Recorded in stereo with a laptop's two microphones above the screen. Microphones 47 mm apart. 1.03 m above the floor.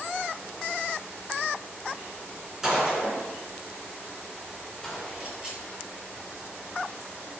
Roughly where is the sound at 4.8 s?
Centre.